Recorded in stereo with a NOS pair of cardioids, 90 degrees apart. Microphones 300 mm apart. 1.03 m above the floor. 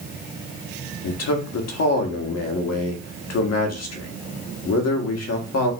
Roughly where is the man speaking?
Ahead left.